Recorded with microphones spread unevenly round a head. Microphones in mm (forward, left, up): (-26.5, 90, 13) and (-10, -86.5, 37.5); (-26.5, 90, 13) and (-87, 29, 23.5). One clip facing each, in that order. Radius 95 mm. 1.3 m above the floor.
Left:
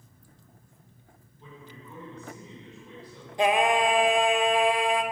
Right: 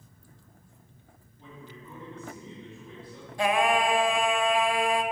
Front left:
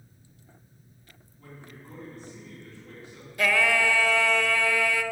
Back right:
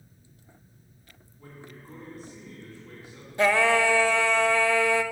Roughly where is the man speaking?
Ahead right.